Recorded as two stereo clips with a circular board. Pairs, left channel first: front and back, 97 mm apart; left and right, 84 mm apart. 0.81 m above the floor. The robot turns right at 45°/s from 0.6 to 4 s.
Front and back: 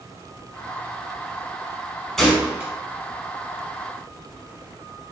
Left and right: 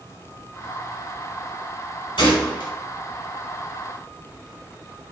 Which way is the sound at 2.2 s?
90° left.